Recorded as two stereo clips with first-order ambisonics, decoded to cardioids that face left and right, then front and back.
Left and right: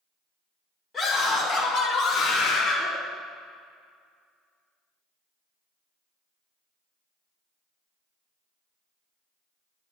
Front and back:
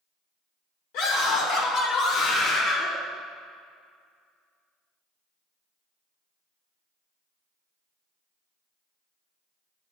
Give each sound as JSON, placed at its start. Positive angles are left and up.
{"t": 0.9, "sound": "a scream", "azimuth_deg": 5, "distance_m": 4.0}